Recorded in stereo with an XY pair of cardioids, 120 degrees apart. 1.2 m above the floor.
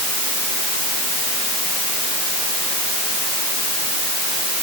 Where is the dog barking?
No dog barking in this recording.